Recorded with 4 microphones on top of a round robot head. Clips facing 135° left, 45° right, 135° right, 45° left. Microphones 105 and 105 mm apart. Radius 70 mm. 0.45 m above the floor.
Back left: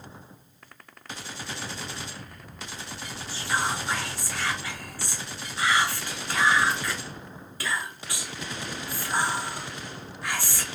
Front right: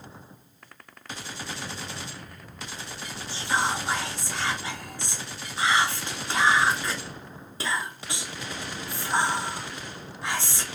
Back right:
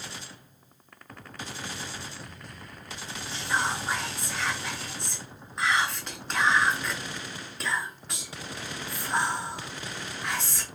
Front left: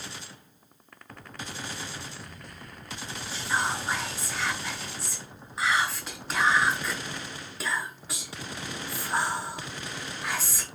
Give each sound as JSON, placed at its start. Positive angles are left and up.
{"t": 3.3, "sound": "whispering", "azimuth_deg": -40, "distance_m": 0.7}